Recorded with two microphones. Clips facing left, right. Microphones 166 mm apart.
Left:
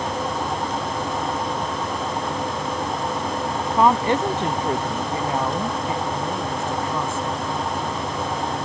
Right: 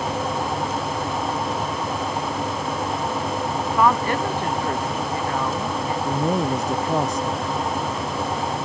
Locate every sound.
3.7 s a woman speaking: 25° left (ahead or behind)
6.0 s a man speaking: 40° right (ahead or behind)